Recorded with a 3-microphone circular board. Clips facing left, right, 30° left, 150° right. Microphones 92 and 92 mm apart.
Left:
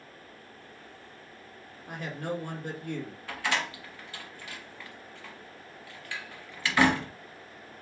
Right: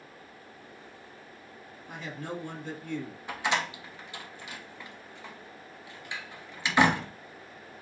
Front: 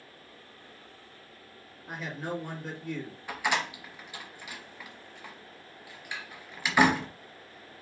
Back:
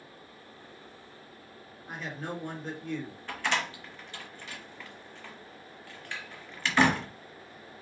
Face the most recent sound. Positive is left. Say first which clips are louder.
# right 2 dB, front 1 dB
turn(degrees=-35)